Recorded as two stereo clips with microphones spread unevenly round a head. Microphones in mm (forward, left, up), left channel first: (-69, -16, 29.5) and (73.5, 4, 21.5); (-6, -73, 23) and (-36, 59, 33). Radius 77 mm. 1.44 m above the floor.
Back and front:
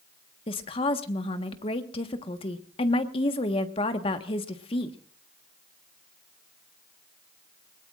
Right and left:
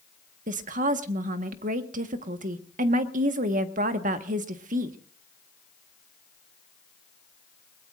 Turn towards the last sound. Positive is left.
turn(degrees=130)